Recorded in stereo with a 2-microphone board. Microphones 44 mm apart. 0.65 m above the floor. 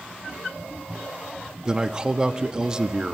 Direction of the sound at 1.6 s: 20° right (ahead or behind).